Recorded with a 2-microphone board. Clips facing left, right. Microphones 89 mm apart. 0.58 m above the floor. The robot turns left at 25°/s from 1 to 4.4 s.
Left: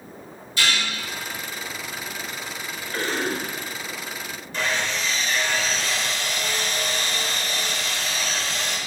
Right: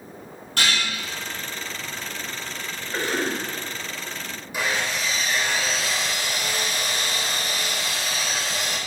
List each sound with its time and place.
0.6 s dishes clattering: 65° right (ahead or behind), 3.5 m
2.9 s a cough: 20° right (ahead or behind), 3.5 m; by 3.4 s 5° right (ahead or behind), 3.5 m
4.5 s sawing: 10° right (ahead or behind), 1.6 m